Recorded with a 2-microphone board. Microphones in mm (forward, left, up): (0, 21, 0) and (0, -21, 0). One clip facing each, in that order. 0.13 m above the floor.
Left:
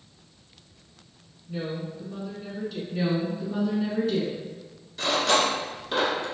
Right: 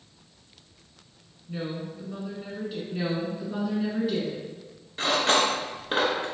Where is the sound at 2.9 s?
10° right (ahead or behind), 1.4 m.